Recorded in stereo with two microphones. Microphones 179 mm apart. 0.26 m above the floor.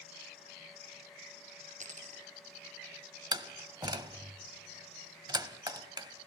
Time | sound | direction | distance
1.8 | a dropped coin | 45° right (ahead or behind) | 1.5 m
3.3 | a door slam | 25° right (ahead or behind) | 0.8 m